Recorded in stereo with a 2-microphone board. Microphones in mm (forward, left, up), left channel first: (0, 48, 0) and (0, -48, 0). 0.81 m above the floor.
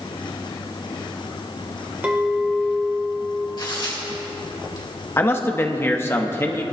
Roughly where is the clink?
Centre.